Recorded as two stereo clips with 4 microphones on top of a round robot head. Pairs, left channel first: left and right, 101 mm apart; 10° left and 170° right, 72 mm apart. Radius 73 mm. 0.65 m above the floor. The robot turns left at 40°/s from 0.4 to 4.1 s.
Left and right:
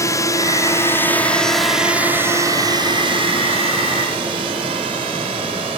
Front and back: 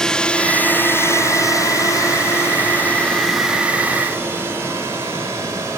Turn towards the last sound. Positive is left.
turn(degrees=-120)